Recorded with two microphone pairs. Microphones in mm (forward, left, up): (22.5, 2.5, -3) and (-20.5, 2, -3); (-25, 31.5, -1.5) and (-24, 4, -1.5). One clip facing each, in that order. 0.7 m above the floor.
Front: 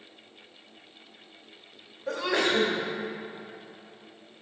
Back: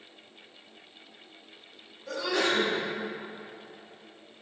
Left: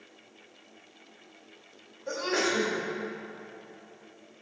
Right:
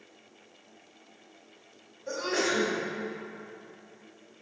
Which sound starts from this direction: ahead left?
A sneeze, at 2.1 s.